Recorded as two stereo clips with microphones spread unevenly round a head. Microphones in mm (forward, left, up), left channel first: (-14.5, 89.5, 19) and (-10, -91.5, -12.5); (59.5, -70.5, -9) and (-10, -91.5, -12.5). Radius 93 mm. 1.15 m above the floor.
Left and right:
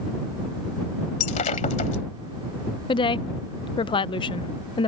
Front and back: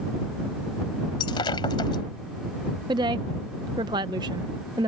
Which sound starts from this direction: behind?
A woman speaking, at 2.9 s.